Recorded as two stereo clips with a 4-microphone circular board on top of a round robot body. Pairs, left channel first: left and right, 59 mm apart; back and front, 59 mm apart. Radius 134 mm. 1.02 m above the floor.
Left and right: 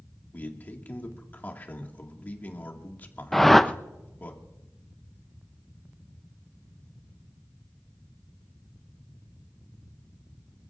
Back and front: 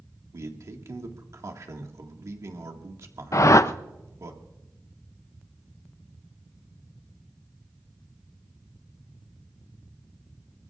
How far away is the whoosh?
About 0.6 m.